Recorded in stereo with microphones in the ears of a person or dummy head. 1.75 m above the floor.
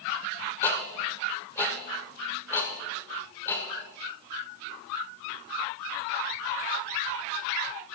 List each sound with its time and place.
0.6 s ticking: 20° left (ahead or behind), 2 m